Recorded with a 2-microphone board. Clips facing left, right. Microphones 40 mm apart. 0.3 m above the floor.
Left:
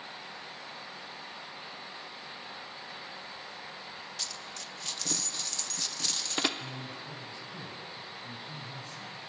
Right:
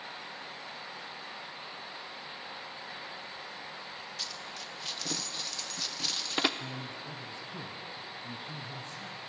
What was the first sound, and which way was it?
A dropped coin, 10° right (ahead or behind).